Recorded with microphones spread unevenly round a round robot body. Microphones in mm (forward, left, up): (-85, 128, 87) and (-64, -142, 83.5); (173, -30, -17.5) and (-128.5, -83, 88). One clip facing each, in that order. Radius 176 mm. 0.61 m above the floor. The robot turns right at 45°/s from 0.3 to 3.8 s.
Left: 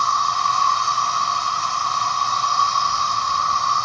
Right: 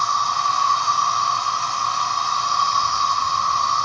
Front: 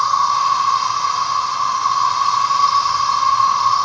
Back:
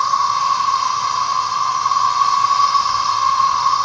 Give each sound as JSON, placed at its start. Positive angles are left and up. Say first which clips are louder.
{"t": 0.0, "sound": "an insect", "louder": "left 1 dB, front 1 dB", "azimuth_deg": 110, "distance_m": 1.4}